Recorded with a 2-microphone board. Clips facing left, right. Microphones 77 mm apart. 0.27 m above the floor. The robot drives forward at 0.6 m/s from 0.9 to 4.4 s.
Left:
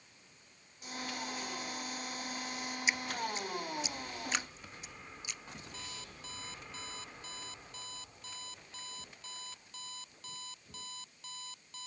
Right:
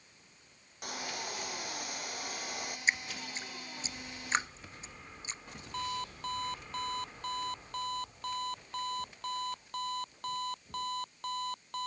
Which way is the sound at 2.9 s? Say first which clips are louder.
Right 1 dB; 40° right (ahead or behind).